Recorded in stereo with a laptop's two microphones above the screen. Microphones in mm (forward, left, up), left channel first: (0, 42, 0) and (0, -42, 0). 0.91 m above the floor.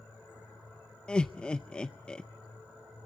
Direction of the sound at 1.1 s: 15° left (ahead or behind).